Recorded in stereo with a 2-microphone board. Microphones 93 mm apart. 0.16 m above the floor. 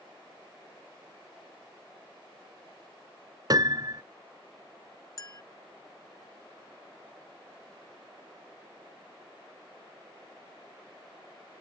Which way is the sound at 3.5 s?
45° right (ahead or behind).